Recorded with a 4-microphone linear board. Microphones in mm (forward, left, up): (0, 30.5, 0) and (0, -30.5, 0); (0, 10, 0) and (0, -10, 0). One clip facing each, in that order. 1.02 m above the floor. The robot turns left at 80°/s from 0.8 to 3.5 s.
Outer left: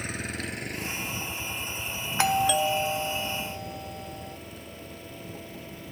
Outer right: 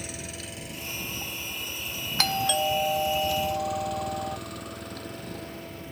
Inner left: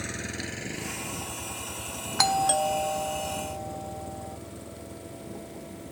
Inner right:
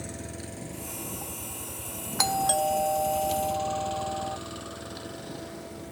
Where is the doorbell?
40° left; by 4.4 s 65° right.